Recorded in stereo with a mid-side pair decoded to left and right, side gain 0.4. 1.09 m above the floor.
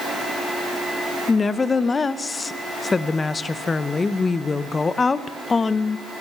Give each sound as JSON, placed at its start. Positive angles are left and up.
{"t": 1.3, "sound": "a woman speaking", "azimuth_deg": 35, "distance_m": 0.6}